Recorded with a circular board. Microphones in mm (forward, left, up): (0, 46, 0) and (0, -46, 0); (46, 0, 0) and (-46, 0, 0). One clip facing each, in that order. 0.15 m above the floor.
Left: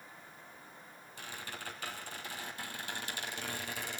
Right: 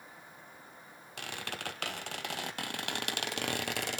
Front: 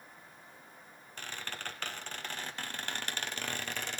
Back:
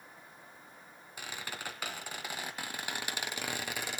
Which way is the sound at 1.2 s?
100° right.